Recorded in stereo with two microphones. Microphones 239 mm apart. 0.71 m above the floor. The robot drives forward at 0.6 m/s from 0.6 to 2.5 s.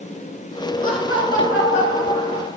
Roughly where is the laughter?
Left.